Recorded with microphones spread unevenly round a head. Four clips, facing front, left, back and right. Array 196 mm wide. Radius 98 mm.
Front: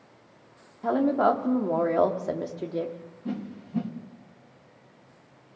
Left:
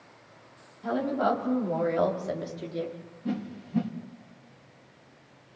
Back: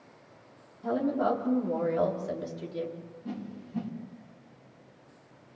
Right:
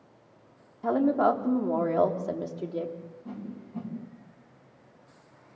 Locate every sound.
0.8 s a woman speaking: 30° right, 3.5 m; by 3.0 s 15° right, 3 m
3.2 s a whoosh: 55° left, 2.5 m